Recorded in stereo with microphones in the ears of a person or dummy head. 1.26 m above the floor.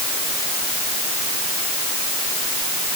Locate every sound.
Only background noise.